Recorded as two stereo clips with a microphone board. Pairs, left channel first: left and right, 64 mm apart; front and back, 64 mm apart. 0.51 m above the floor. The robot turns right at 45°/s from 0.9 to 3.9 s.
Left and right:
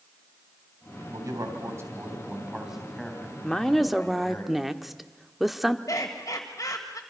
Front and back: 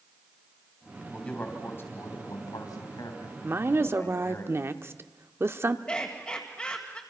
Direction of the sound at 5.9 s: 70° left.